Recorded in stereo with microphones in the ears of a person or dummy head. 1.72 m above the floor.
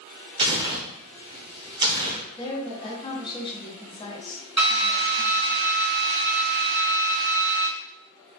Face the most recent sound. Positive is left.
turn(degrees=-15)  # may be behind; listen again after turning